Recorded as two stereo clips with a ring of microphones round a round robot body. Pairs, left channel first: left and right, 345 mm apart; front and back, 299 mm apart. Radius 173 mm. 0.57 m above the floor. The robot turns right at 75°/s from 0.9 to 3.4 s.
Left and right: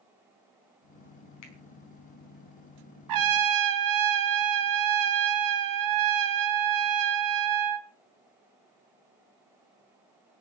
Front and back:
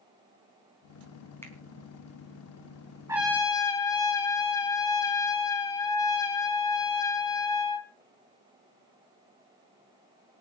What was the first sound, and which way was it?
A finger snap, 80° left.